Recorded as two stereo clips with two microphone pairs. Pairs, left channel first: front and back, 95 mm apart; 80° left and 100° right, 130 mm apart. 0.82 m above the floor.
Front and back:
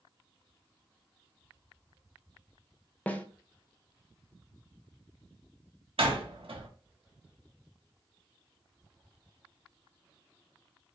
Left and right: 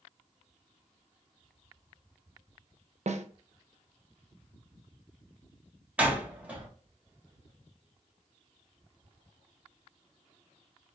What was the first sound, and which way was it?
A snare drum, 75° right.